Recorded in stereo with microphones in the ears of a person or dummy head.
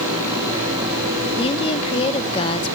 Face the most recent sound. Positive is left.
turn(degrees=35)  # may be behind; listen again after turning